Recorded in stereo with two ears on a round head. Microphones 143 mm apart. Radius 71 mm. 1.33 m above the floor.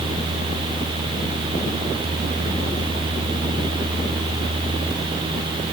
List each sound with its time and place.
Only background noise.